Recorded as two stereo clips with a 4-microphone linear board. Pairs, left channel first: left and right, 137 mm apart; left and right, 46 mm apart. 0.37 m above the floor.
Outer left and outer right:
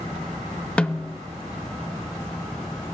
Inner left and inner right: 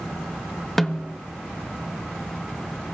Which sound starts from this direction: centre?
A snare drum, at 0.8 s.